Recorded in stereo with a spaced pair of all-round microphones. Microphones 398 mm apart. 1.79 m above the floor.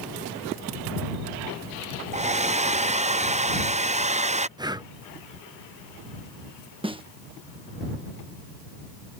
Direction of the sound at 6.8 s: 15° right (ahead or behind).